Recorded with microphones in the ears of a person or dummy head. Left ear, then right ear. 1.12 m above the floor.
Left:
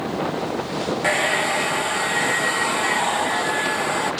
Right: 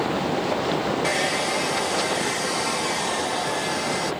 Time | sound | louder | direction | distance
1.0 | a hair dryer | left 7 dB | 20° left (ahead or behind) | 0.6 m